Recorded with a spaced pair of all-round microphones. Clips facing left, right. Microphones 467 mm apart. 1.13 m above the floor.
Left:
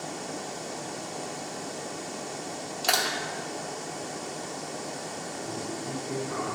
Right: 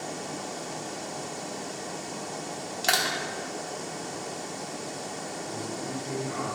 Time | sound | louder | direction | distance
2.8 | crushing | even | 35° right (ahead or behind) | 0.9 m
5.4 | a man speaking | left 1 dB | 60° left (ahead or behind) | 3 m